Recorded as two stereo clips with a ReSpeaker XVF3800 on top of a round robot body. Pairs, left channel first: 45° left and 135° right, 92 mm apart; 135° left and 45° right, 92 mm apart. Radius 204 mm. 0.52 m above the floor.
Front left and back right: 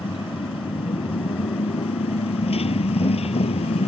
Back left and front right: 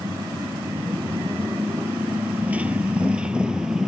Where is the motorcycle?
15° left; by 3.9 s 40° left.